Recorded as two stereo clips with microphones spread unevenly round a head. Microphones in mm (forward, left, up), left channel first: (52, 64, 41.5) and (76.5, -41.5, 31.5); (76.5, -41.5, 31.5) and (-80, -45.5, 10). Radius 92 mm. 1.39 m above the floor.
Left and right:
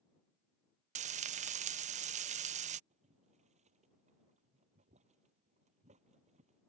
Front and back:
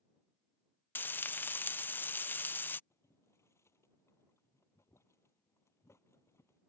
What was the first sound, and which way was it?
Frying, 75° right.